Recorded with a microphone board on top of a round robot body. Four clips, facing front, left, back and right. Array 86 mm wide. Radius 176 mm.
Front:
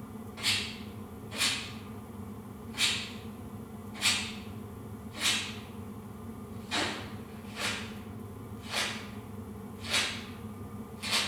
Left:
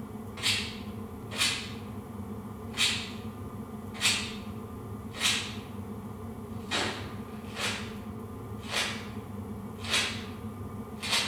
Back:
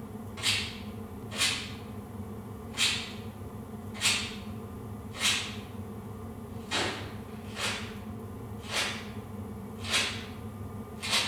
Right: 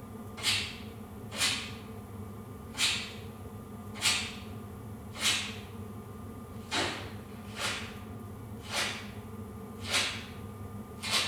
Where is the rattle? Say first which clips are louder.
Left 2 dB, even; 100° left, 1.8 m.